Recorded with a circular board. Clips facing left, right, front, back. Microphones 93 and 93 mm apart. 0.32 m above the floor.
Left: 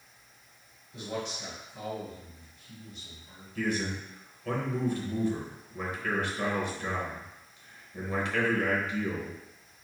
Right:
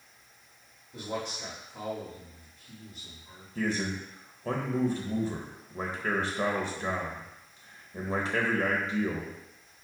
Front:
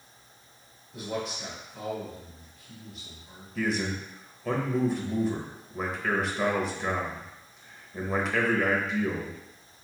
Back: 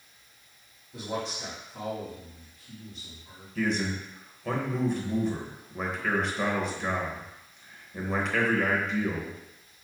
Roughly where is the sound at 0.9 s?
Behind right.